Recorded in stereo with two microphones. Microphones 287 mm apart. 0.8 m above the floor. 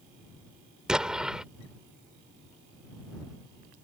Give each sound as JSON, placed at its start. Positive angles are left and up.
{"t": 0.9, "sound": "an explosion", "side_deg": -5}